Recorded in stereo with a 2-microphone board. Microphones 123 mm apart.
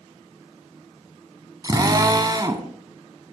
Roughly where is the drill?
Right.